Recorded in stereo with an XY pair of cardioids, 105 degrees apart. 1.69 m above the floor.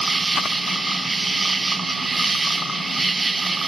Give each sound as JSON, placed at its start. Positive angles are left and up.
{"t": 0.0, "sound": "an insect", "azimuth_deg": -25}